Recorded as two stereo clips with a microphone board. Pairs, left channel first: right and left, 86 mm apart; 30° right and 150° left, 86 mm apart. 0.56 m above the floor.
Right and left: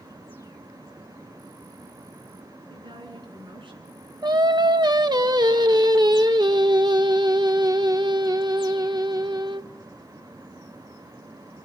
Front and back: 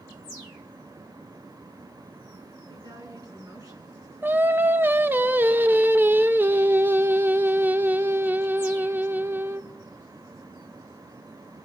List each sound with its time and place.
2.7 s a woman speaking: 110° left, 5.5 m; by 4.1 s 100° left, 5.5 m
4.2 s singing: 90° left, 0.8 m